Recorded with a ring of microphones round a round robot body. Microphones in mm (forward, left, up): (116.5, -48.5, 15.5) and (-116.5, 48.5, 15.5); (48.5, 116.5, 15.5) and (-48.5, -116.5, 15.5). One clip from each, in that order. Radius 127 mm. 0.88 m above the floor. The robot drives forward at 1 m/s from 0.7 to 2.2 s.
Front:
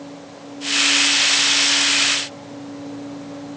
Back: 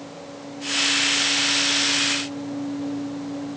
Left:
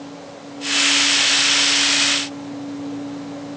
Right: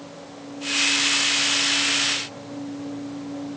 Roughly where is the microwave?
No microwave in this recording.